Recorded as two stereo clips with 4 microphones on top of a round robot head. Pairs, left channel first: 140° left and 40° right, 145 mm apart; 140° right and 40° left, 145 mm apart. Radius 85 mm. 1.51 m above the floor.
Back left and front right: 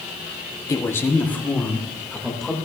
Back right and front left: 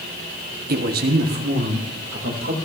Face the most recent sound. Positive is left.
turn(degrees=55)